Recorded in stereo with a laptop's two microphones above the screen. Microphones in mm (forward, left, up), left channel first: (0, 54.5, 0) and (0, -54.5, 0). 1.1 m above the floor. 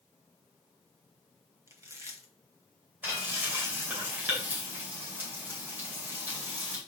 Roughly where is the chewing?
Right.